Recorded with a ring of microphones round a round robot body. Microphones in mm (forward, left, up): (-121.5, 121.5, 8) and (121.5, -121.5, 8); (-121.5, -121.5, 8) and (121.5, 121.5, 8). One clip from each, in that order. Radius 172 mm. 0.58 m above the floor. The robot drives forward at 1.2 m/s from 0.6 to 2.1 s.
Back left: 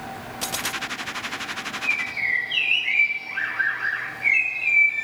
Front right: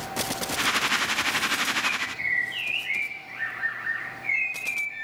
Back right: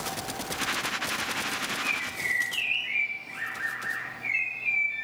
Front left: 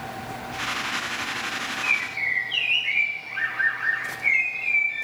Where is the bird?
90° left, 1.9 m; by 5.0 s 100° left, 1.9 m.